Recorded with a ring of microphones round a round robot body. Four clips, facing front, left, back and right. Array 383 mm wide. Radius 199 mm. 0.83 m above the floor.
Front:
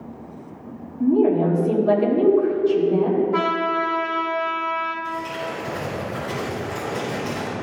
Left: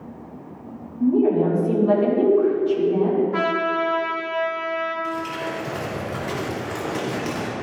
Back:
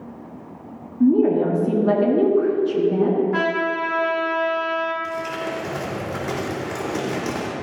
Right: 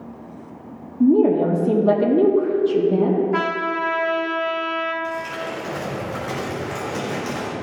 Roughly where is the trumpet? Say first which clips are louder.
Even, front 1 dB; behind right.